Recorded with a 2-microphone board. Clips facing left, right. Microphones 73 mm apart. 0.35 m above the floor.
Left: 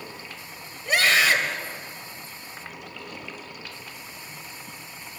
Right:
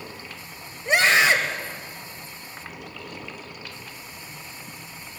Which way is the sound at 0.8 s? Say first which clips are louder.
Right 2 dB; 25° right (ahead or behind).